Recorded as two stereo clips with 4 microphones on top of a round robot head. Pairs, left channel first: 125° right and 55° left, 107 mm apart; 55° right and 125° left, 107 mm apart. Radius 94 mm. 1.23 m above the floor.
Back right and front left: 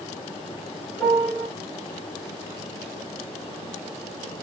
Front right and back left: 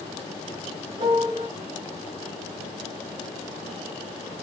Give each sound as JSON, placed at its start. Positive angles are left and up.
{"t": 1.0, "sound": "a piano", "azimuth_deg": 160, "distance_m": 1.8}